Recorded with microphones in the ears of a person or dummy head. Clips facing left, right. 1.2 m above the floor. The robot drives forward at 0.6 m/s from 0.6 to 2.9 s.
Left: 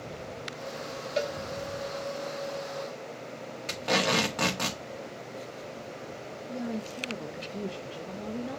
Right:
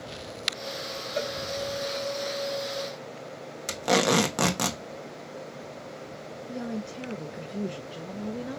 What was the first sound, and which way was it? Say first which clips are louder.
A cowbell: left 1 dB; 5° left (ahead or behind).